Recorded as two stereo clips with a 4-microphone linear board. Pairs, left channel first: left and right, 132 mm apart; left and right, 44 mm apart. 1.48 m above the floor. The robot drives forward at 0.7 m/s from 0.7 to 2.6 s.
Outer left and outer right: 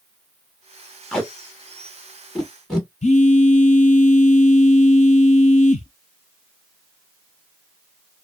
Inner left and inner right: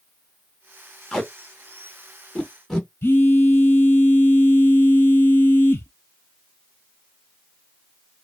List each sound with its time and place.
1.1 s tape being pulled: 5° left (ahead or behind), 0.9 m
3.0 s a phone buzzing: 60° left (ahead or behind), 0.6 m